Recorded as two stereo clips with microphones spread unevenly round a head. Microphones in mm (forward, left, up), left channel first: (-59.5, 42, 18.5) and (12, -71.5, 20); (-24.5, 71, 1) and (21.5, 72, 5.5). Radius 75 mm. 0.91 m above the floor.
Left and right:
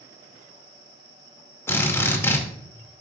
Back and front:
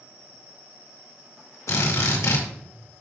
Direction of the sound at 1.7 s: 165° right.